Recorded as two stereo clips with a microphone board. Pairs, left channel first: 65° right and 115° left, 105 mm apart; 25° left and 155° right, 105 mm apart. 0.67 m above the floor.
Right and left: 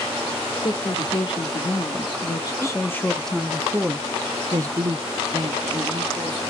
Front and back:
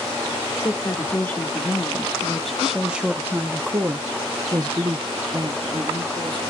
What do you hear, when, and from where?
0.6 s a woman speaking: 40° right, 1.5 m; by 6.5 s 155° left, 1.9 m